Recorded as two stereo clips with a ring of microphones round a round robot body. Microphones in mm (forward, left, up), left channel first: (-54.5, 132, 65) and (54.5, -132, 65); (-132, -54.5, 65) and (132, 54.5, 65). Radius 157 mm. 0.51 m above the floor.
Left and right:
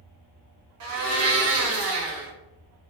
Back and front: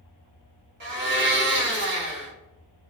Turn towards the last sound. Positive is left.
turn(degrees=-30)